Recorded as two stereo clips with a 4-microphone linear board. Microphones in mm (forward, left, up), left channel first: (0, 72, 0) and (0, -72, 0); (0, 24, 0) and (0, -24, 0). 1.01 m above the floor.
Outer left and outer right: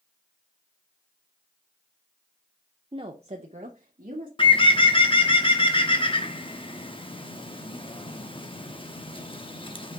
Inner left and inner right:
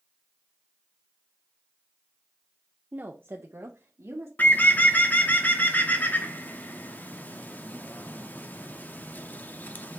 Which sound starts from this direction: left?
A bird, at 4.4 s.